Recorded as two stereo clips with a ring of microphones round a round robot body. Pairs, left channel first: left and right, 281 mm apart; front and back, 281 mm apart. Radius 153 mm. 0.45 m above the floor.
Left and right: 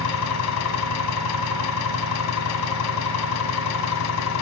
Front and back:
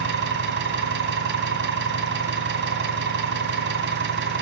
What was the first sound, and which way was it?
An engine running, 130° left.